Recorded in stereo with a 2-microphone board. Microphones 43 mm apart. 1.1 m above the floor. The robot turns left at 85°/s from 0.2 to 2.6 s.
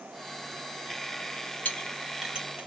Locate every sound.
1.6 s a clink: 45° left (ahead or behind), 2 m; by 2.7 s 35° right (ahead or behind), 2 m